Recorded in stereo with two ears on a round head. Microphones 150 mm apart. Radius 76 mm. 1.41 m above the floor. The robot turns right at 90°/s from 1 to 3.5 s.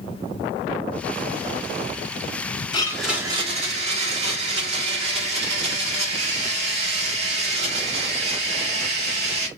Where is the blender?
150° left, 1.4 m; by 9.5 s 140° right, 1.4 m.